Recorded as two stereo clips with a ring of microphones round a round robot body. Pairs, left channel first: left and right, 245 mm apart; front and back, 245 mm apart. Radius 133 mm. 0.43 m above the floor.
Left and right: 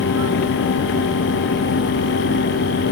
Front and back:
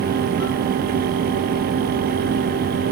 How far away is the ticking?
I don't hear ticking.